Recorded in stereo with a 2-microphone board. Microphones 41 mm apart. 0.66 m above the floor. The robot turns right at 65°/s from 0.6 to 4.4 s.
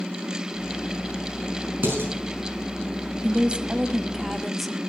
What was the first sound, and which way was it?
Dishes clattering, 55° right (ahead or behind).